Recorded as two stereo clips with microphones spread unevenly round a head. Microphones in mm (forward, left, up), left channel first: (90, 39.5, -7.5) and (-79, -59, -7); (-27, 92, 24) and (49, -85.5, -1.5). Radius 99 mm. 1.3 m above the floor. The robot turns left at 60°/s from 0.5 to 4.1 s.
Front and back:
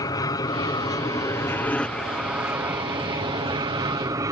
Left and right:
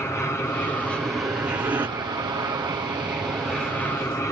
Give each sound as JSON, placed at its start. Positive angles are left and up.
{"t": 0.0, "sound": "an aircraft", "azimuth_deg": 40}